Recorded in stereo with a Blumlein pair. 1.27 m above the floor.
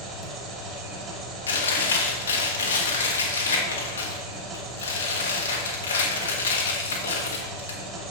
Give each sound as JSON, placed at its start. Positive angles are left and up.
{"t": 0.0, "sound": "an engine running", "azimuth_deg": -35, "distance_m": 2.5}
{"t": 1.5, "sound": "chewing", "azimuth_deg": 70, "distance_m": 1.8}